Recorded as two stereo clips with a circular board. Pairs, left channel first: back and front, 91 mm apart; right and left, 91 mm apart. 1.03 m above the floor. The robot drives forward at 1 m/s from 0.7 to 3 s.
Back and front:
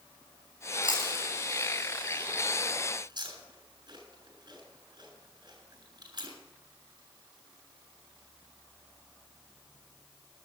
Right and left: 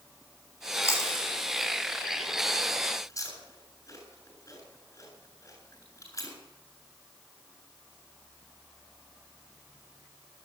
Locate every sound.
0.8 s chewing: 30° right, 9 m; by 6.3 s 35° right, 7.5 m